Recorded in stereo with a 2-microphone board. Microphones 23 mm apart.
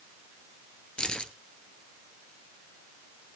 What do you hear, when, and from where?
1.0 s keys jangling: 40° left (ahead or behind), 1.4 m